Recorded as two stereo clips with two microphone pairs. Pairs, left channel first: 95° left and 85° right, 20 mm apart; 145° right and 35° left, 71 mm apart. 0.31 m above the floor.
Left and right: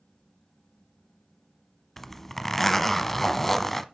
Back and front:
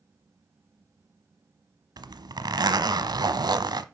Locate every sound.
2.0 s a zipper: 15° left, 0.7 m